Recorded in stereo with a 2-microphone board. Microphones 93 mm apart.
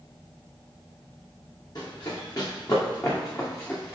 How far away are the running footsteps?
About 4 m.